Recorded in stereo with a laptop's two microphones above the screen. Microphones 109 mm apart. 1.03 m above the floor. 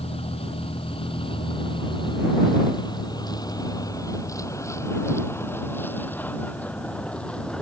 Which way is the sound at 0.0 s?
60° left (ahead or behind).